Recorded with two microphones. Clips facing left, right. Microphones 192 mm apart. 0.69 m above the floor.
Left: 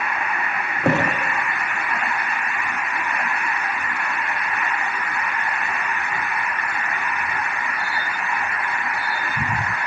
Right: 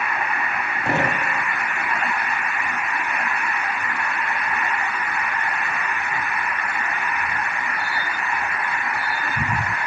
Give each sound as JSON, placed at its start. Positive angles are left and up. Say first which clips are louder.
{"t": 0.8, "sound": "a thud", "louder": "left 4 dB", "side_deg": 65, "distance_m": 6.0}